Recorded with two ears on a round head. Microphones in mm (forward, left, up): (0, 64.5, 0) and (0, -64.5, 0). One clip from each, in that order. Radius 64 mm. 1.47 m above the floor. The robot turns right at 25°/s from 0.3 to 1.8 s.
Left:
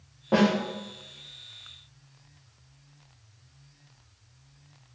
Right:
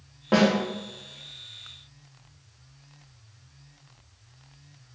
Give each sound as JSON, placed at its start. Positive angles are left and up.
{"t": 0.3, "sound": "a snare drum", "side_deg": -45, "distance_m": 1.9}